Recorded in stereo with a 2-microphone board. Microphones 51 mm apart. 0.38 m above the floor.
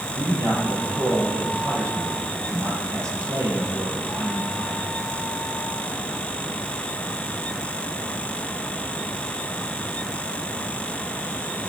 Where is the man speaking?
70° right (ahead or behind), 8.5 m.